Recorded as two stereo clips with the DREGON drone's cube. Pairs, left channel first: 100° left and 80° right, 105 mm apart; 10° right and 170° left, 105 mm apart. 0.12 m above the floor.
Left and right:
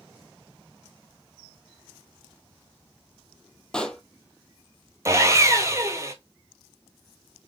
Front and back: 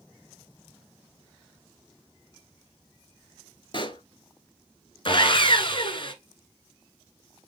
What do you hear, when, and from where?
3.7 s a pop: 20° left, 0.6 m
5.0 s sawing: 25° right, 0.8 m